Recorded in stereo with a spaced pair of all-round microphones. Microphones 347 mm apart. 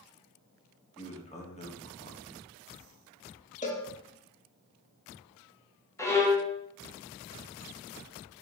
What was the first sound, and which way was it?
A man speaking, 20° left (ahead or behind).